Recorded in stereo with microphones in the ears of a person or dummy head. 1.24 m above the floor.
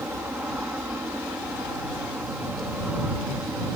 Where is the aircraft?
5° right (ahead or behind).